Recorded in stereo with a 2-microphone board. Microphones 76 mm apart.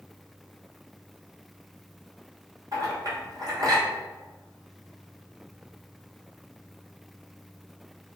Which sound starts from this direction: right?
A clink, at 2.7 s.